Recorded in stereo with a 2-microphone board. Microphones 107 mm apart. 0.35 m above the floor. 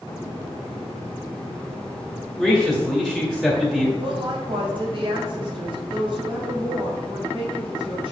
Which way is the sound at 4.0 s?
50° right (ahead or behind).